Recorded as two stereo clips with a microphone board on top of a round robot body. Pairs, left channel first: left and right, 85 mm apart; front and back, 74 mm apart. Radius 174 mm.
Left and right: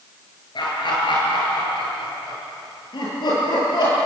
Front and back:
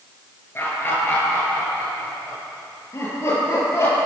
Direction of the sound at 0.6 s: 60° left.